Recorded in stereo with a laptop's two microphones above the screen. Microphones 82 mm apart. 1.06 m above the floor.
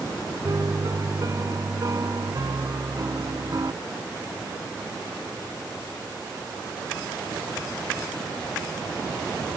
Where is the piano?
45° right (ahead or behind).